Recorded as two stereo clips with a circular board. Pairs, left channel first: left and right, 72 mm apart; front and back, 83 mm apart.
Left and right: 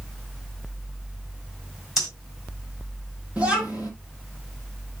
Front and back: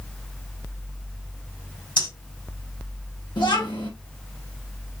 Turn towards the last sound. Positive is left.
turn(degrees=-15)